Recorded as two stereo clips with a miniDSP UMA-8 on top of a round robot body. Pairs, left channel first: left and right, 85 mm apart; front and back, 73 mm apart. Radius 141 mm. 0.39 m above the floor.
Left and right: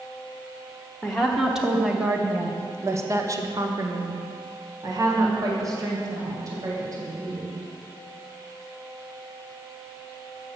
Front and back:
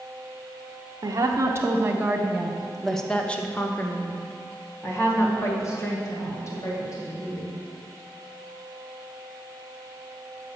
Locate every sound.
1.0 s a woman speaking: 175° left, 1.1 m; by 7.5 s 45° right, 3 m